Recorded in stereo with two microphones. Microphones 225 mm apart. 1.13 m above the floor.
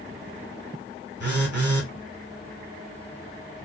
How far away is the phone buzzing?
About 1.7 m.